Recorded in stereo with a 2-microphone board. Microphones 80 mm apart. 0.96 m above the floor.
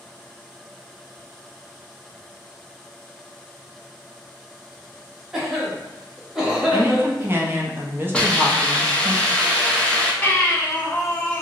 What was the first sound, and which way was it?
A cough, 5° right (ahead or behind).